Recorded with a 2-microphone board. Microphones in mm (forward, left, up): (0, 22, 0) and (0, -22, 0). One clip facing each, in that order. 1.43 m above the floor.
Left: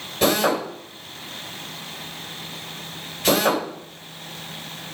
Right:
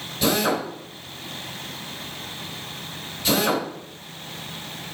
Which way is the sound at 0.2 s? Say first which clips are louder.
Left 2 dB; 75° left (ahead or behind).